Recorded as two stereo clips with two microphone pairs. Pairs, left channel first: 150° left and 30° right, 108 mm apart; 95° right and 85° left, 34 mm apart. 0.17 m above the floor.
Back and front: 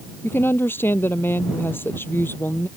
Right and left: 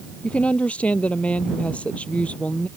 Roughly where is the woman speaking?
Behind right.